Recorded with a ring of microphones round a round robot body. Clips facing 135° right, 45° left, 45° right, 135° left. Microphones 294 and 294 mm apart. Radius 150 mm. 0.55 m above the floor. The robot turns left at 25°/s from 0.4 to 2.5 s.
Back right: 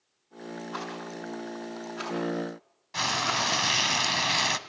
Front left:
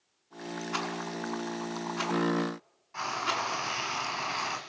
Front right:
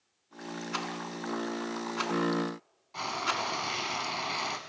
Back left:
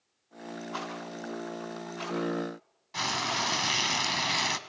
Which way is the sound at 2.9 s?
170° right.